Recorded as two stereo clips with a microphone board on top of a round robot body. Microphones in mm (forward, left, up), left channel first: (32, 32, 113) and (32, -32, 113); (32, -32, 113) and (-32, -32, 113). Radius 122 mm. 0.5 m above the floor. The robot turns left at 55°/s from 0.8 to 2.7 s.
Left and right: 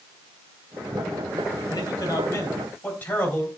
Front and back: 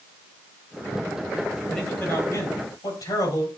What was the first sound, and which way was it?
A man speaking, 80° left.